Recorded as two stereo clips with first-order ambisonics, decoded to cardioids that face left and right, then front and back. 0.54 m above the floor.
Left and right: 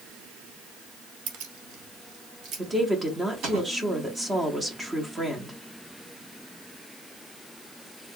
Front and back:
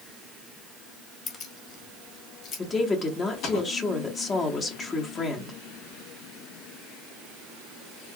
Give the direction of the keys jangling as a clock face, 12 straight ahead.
2 o'clock.